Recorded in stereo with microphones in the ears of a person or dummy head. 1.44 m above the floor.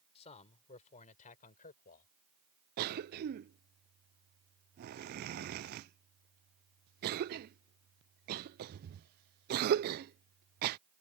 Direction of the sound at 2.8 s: 55° right (ahead or behind).